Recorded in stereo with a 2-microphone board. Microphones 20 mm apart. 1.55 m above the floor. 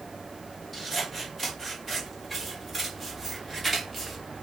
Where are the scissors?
5° left (ahead or behind), 3 m.